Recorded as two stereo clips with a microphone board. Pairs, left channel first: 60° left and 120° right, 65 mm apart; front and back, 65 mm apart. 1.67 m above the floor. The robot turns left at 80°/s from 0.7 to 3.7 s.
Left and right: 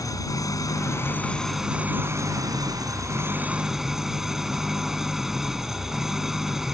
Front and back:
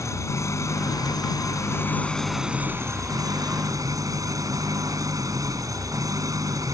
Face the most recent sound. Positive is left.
turn(degrees=155)